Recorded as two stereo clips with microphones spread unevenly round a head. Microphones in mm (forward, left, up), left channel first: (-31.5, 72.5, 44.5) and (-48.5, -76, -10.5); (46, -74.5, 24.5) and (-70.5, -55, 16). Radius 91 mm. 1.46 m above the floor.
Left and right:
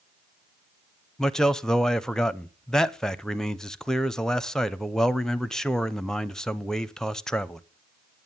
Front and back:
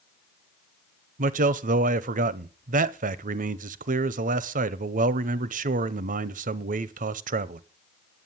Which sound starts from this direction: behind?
A man speaking, at 1.2 s.